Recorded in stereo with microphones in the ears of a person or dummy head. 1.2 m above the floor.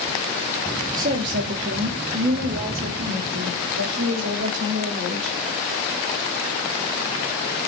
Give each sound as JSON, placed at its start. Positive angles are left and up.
{"t": 1.0, "sound": "a woman speaking", "side_deg": -40, "distance_m": 0.6}